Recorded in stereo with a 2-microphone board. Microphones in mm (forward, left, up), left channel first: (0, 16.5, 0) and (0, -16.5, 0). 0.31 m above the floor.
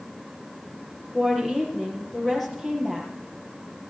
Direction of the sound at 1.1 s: 5° left (ahead or behind).